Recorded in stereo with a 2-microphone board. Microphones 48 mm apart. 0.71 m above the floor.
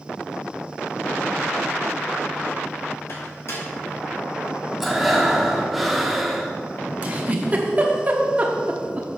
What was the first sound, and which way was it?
A microwave, 60° left (ahead or behind).